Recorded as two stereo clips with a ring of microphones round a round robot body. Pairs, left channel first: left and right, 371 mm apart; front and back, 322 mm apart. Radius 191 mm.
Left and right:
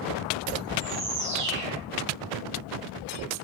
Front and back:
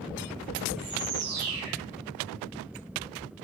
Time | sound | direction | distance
0.8 | a bird | 150° right | 4 m